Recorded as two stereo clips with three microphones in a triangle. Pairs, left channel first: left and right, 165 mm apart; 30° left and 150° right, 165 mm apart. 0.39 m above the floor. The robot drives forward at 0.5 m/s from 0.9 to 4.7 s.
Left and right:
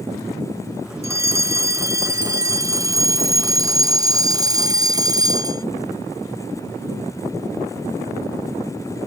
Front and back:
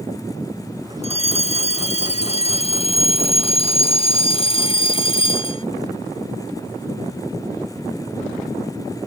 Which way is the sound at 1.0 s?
20° right.